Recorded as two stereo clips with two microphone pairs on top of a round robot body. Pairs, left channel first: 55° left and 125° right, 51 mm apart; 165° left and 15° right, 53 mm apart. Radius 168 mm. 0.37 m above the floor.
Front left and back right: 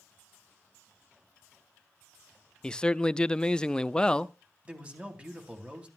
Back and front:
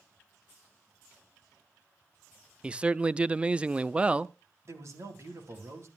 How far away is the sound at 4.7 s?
About 3.5 m.